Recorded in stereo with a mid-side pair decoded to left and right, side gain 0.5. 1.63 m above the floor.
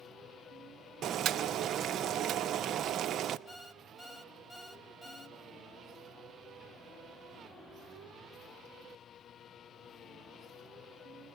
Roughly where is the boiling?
Ahead right.